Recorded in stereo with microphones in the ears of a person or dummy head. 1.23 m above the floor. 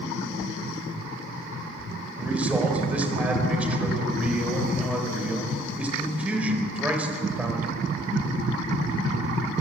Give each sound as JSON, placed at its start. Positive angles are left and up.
{"t": 2.2, "sound": "a man speaking", "side_deg": -10, "distance_m": 4.5}